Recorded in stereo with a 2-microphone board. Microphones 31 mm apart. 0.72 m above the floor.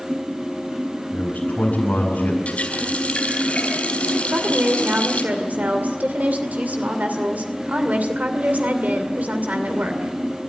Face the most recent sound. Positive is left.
turn(degrees=-75)  # may be behind; listen again after turning